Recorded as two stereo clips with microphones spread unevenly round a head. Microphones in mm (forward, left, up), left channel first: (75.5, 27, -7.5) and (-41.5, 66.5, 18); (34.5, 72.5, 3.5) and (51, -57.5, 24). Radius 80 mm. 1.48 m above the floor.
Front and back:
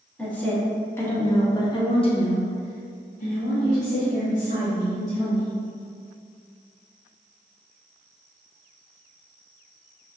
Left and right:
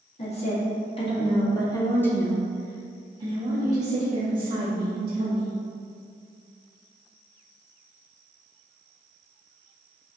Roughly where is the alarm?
I don't hear an alarm.